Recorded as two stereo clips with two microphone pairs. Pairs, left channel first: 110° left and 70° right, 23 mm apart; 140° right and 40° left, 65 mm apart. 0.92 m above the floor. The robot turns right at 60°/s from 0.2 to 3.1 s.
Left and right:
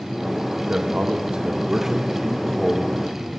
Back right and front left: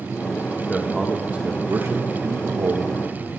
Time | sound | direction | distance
0.7 | a man speaking | 70° right | 1.7 m